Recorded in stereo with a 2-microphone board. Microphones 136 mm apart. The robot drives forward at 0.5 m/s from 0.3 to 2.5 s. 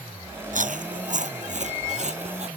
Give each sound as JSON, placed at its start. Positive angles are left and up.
{"t": 0.5, "sound": "chewing", "side_deg": -70}